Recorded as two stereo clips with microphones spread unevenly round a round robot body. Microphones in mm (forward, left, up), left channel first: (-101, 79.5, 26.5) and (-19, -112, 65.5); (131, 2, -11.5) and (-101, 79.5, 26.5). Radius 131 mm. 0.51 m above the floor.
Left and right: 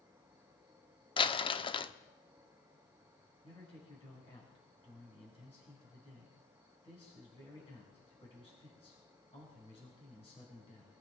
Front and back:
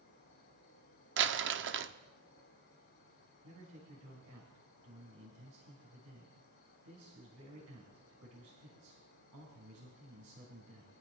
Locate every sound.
0.0 s an insect: 20° left, 6 m
1.2 s crumpling: 150° left, 0.7 m
3.4 s a man speaking: 170° left, 5 m